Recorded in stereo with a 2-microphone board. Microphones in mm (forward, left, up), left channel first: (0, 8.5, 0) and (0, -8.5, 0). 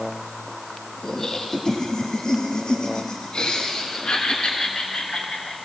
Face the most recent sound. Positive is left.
turn(degrees=75)  # may be behind; listen again after turning